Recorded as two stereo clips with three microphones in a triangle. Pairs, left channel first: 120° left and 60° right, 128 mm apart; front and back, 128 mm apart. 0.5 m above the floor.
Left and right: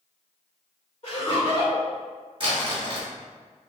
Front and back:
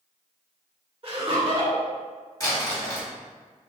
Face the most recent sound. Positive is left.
turn(degrees=-50)